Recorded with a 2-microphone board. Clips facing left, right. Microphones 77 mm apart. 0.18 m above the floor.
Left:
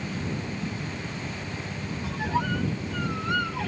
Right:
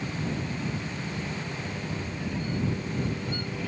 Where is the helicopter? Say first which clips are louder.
Even; 5° right (ahead or behind); by 3.7 s 10° right (ahead or behind).